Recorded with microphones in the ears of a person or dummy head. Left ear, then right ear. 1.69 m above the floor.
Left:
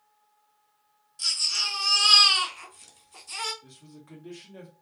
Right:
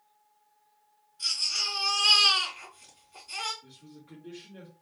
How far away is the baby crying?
About 2.5 m.